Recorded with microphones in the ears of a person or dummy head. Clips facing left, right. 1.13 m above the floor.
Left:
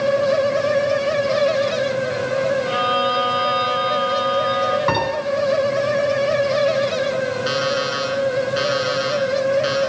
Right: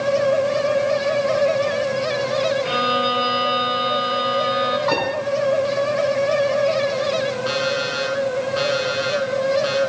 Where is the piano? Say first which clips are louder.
Even; 50° left (ahead or behind), 8.5 m.